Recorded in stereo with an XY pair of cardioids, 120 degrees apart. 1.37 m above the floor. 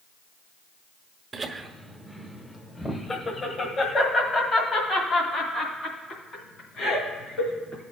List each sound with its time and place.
1.3 s laughter: 35° right, 1.0 m; by 7.8 s 55° left, 4.5 m